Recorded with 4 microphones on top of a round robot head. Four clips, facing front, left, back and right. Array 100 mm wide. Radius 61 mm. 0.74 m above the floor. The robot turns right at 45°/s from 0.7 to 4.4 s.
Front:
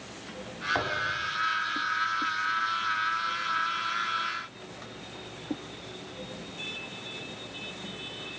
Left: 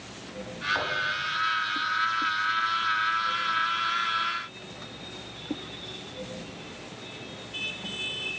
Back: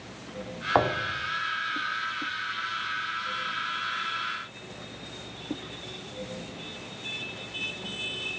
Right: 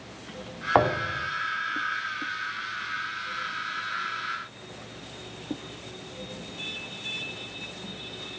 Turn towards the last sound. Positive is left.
turn(degrees=45)